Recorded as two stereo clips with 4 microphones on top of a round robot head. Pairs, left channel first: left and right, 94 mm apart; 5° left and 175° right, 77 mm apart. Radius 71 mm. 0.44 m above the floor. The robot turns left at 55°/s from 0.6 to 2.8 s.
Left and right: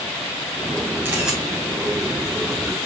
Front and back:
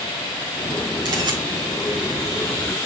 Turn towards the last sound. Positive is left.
turn(degrees=105)